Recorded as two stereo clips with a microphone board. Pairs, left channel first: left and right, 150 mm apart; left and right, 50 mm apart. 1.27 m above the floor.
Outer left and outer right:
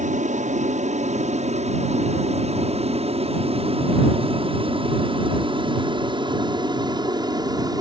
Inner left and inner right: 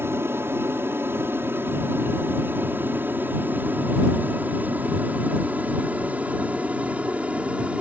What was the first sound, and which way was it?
An aircraft, 50° right (ahead or behind).